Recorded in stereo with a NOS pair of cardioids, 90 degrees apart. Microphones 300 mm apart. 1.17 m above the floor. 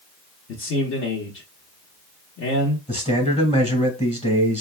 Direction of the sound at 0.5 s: 60° left.